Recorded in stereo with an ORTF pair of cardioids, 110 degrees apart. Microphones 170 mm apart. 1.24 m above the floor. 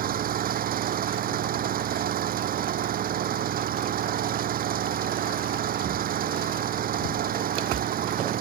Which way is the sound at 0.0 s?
60° right.